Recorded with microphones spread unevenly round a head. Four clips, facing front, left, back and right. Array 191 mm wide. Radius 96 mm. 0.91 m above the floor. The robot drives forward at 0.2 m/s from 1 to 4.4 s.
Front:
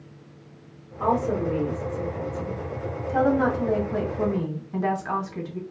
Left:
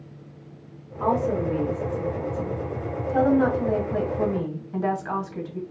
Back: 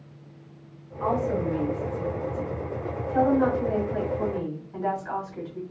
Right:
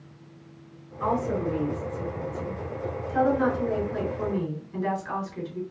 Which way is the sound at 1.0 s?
30° left.